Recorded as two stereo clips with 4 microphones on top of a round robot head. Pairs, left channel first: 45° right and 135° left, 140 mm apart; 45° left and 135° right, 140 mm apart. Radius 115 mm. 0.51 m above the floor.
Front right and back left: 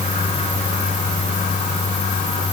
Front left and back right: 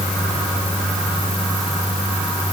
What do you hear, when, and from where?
Only background noise.